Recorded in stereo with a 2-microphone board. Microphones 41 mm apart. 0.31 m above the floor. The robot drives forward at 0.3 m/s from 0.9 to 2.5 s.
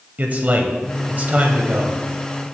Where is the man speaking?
45° right (ahead or behind), 1.1 m; by 2.0 s 40° right (ahead or behind), 1.2 m.